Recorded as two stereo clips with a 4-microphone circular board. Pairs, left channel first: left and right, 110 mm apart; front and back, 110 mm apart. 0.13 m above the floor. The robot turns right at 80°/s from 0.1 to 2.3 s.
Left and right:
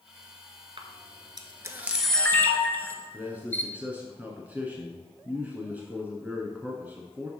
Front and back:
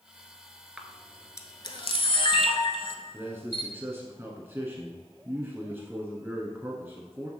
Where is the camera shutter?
100° right, 0.8 m; by 3.7 s 20° left, 0.8 m.